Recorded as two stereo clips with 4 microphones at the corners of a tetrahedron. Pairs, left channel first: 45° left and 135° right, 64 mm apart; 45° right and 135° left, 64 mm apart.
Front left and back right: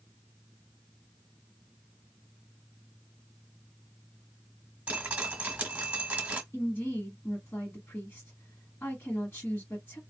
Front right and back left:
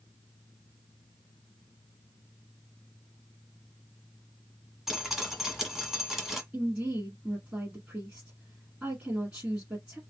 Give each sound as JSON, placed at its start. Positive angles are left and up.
{"t": 4.9, "sound": "dripping", "azimuth_deg": -145, "distance_m": 1.4}
{"t": 6.5, "sound": "a woman speaking", "azimuth_deg": 75, "distance_m": 1.4}